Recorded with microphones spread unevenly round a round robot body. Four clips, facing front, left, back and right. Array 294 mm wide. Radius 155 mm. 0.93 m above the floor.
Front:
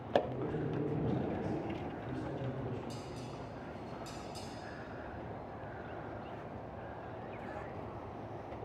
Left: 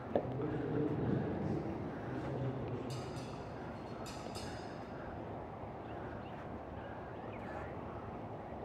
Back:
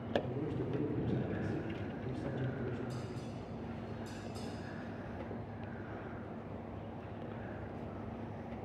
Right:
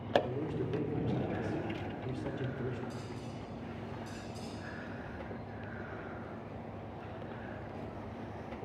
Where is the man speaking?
105° right, 3 m.